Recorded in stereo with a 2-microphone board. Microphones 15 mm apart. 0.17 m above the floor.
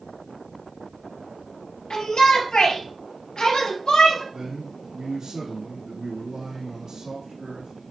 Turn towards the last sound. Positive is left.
turn(degrees=-60)  # may be behind; listen again after turning